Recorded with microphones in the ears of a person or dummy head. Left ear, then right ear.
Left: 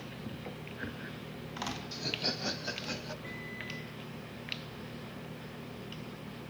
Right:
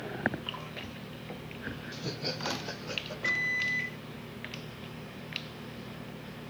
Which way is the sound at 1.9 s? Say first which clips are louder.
Left 2 dB; 80° left.